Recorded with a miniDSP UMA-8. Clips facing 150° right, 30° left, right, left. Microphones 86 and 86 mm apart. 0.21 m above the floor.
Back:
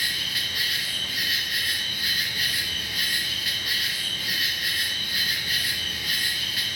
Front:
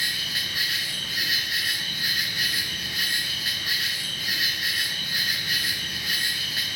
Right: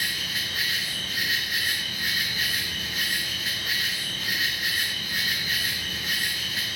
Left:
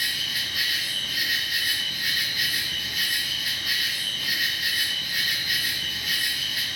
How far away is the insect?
About 3.5 m.